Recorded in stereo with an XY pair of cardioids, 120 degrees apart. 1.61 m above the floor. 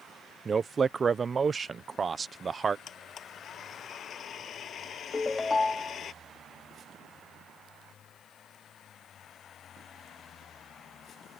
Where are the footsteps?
I don't hear footsteps.